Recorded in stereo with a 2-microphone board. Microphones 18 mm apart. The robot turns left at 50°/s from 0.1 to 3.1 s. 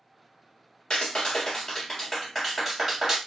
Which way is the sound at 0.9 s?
85° left.